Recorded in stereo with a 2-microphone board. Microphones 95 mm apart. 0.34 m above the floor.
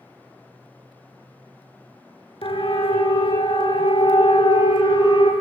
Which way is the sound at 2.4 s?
75° left (ahead or behind).